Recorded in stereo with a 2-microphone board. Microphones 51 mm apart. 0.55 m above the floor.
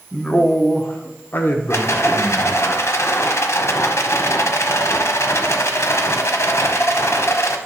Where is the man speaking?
20° left (ahead or behind), 0.8 m; by 2.6 s 50° left (ahead or behind), 1.5 m.